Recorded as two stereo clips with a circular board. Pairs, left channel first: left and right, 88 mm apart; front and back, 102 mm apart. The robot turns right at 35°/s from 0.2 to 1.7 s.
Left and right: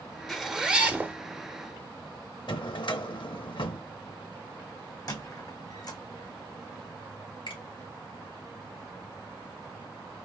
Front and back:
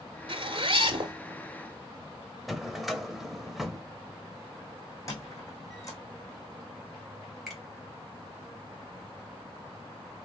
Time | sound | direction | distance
0.3 | a zipper | straight behind | 0.9 m
2.5 | a drawer | 90° left | 0.6 m
5.1 | a squeak | 50° left | 1.5 m
7.5 | a finger snap | 90° left | 2.5 m